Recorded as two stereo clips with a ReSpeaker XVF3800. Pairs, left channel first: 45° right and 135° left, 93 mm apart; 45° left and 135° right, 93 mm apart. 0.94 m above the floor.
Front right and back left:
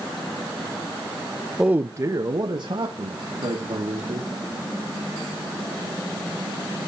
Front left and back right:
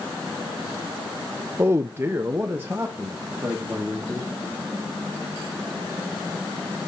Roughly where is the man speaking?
Behind right.